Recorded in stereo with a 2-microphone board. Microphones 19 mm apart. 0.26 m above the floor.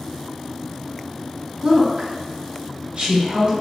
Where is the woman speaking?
45° right (ahead or behind), 1.8 m; by 3.5 s 60° right (ahead or behind), 2.5 m.